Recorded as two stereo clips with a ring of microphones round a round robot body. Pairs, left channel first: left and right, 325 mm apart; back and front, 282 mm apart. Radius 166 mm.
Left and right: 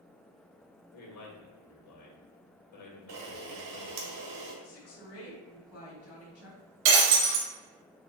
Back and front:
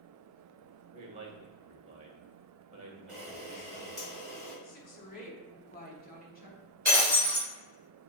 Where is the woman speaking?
125° left, 1.5 m.